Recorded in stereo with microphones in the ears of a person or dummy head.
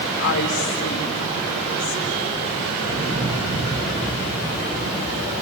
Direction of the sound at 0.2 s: 65° left (ahead or behind).